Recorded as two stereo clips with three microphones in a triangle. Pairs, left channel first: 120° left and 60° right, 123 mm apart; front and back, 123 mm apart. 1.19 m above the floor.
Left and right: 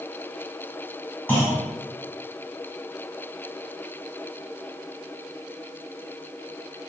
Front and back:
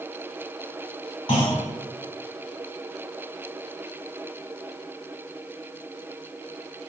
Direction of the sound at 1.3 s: 45° left.